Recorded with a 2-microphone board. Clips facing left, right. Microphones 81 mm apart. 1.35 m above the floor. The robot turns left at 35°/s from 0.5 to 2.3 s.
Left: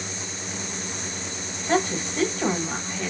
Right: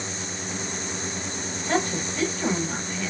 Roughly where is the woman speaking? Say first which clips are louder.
Left 2 dB; centre.